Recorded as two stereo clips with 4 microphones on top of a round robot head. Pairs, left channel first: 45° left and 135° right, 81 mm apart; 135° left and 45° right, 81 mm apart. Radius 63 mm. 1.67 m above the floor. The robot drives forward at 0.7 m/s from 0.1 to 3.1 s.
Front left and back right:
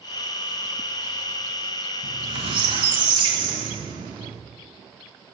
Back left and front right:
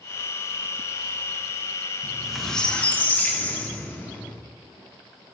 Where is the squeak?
115° right, 0.9 m; by 4.4 s 155° right, 1.3 m.